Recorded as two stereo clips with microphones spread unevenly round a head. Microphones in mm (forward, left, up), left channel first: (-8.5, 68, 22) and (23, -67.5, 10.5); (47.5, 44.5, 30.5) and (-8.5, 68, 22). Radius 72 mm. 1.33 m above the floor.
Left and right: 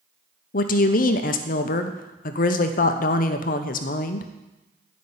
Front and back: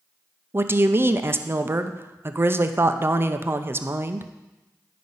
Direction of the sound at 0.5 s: 120° left.